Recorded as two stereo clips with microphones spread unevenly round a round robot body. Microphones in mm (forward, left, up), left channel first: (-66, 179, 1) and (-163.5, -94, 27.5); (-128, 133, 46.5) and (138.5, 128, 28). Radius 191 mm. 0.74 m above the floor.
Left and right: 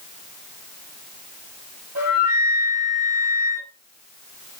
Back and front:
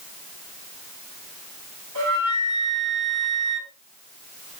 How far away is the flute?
About 2.5 m.